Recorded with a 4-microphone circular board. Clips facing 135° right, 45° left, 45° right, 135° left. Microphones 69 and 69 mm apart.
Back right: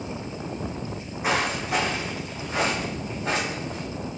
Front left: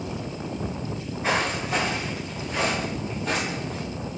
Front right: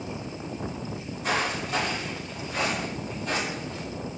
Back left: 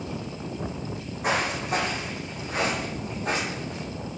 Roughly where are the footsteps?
Behind left.